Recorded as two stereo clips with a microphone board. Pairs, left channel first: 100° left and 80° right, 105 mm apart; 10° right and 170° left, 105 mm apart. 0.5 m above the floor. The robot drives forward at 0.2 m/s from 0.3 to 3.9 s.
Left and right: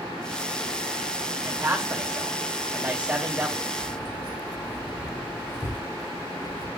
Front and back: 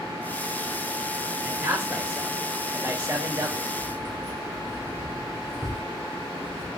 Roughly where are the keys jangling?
Behind left.